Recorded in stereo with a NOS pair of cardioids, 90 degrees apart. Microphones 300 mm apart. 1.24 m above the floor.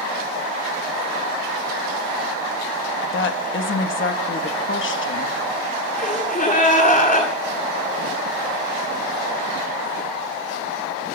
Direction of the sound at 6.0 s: 25° left.